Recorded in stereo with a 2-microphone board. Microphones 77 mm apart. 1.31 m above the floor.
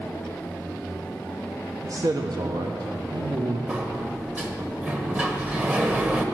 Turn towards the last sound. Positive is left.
turn(degrees=-20)  # may be behind; listen again after turning